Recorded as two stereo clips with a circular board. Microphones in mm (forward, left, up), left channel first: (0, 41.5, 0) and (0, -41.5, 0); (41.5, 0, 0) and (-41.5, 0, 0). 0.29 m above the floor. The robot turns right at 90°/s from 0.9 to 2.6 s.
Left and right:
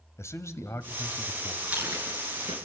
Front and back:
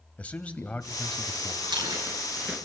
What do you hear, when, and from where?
0.2 s a man speaking: 65° left, 1.5 m; by 1.5 s 120° left, 1.5 m
1.6 s chewing: 170° right, 4 m; by 2.6 s 85° right, 4 m